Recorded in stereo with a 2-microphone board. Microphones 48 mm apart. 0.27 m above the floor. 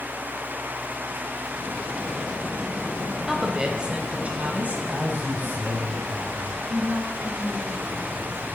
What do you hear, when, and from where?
3.3 s a woman speaking: 10° right (ahead or behind), 1.0 m; by 4.8 s 35° right (ahead or behind), 1.7 m
4.9 s a man speaking: 45° right (ahead or behind), 1.5 m
6.7 s a woman speaking: 65° right (ahead or behind), 3 m